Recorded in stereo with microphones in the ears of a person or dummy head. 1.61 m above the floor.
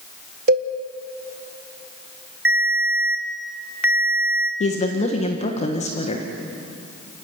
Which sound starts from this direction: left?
A woman speaking, at 4.6 s.